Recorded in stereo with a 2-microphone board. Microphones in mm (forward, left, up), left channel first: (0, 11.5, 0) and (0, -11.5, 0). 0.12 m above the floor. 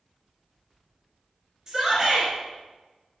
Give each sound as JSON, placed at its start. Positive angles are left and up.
{"t": 1.7, "sound": "a shout", "side_deg": -15, "distance_m": 1.9}